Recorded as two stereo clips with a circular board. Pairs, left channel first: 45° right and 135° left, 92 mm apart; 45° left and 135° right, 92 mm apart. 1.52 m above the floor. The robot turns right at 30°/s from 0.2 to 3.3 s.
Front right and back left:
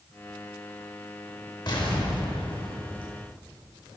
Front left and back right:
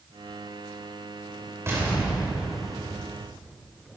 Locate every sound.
1.7 s an explosion: 75° right, 2.5 m; by 3.1 s 35° right, 2.5 m